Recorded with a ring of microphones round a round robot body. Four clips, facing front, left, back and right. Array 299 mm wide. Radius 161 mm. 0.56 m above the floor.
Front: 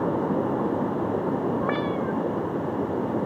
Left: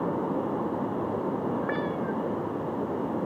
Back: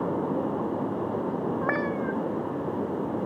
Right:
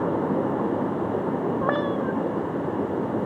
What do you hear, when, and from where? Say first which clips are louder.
1.6 s a cat meowing: right 5 dB, front 2 dB; 100° right